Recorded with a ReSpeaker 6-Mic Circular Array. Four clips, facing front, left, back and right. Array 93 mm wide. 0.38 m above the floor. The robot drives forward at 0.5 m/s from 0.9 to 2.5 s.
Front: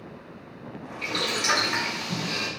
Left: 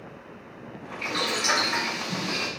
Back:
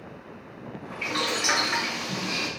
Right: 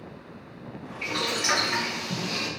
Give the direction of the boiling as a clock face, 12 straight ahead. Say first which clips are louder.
Left 1 dB, even; 5 o'clock.